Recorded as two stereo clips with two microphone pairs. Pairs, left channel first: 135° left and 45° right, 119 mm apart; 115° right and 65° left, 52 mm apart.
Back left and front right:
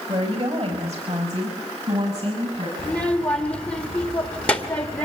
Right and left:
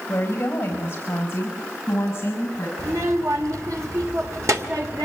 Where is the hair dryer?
No hair dryer in this recording.